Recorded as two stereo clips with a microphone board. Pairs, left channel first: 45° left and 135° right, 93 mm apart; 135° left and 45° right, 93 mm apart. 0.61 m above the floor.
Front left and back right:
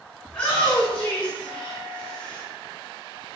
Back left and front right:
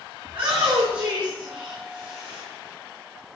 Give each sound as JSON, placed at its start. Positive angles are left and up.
{"t": 0.2, "sound": "a shout", "azimuth_deg": -35, "distance_m": 5.0}